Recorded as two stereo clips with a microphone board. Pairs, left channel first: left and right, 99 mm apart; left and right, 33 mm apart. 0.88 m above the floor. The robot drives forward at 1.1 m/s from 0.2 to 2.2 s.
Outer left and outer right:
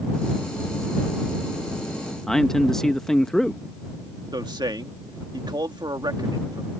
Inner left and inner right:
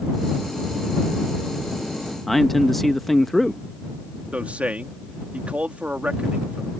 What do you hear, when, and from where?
2.3 s a man speaking: 5° left (ahead or behind)
4.3 s a man speaking: 50° right (ahead or behind)